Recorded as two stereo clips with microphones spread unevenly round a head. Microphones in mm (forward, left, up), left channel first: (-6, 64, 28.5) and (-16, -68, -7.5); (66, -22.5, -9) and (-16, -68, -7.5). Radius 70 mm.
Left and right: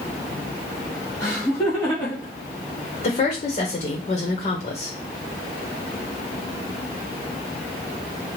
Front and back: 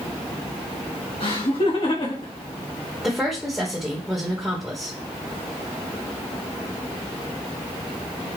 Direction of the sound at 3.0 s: 120° left.